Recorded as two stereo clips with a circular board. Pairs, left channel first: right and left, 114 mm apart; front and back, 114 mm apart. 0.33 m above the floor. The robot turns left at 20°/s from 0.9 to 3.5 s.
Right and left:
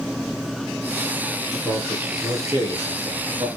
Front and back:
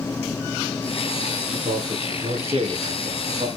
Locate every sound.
1.5 s a man speaking: 170° left, 3.5 m; by 3.5 s 135° left, 3.5 m